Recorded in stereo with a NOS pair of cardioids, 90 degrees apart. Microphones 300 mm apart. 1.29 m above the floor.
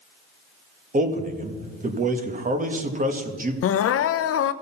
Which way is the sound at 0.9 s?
25° right.